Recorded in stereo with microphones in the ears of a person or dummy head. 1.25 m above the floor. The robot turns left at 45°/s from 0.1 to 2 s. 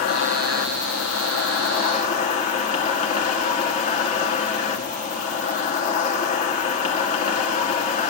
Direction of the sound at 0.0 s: 130° left.